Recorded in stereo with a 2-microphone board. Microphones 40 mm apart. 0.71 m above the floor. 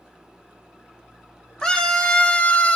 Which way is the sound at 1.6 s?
20° left (ahead or behind).